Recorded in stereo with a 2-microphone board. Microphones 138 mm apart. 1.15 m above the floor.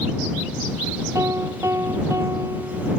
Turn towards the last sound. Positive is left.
turn(degrees=-20)  # may be behind; listen again after turning